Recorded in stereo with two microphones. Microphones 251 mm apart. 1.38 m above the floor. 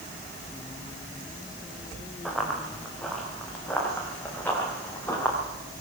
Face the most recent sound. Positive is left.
turn(degrees=10)  # may be behind; listen again after turning